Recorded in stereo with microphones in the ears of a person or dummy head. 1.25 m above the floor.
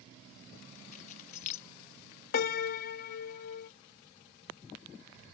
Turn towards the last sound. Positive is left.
turn(degrees=50)  # may be behind; listen again after turning